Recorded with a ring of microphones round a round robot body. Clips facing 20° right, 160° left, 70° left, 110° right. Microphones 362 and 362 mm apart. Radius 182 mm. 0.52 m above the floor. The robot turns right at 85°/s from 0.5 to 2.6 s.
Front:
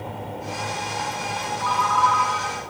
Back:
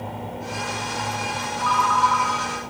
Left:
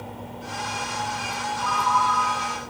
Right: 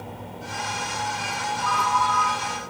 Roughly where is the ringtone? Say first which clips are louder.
Back 1 dB, left 1 dB; left.